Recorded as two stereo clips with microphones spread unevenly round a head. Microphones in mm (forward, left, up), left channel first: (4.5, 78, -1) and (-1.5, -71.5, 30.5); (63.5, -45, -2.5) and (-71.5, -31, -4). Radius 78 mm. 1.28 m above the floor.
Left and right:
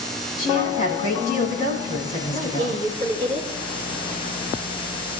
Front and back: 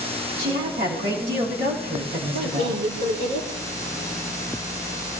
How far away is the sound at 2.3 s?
About 4 m.